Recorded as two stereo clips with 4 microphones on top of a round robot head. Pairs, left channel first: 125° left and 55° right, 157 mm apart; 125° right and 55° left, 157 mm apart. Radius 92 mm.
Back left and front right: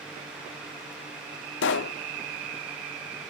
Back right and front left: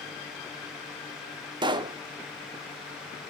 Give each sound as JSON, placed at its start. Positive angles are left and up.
{"t": 1.6, "sound": "a pop", "azimuth_deg": 120, "distance_m": 0.6}